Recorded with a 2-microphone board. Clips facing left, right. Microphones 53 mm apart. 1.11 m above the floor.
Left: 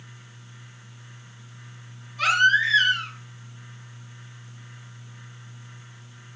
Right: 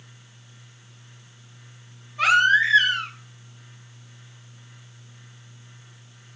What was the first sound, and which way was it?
A baby crying, 25° right (ahead or behind).